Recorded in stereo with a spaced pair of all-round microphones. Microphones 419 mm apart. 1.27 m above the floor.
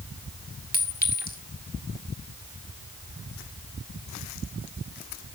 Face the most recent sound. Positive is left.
turn(degrees=20)  # may be behind; listen again after turning